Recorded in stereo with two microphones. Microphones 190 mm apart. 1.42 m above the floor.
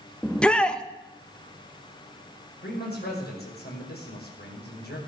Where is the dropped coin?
I don't hear a dropped coin.